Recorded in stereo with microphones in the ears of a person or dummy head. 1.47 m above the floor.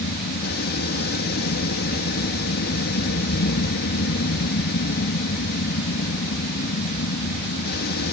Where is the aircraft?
50° left (ahead or behind).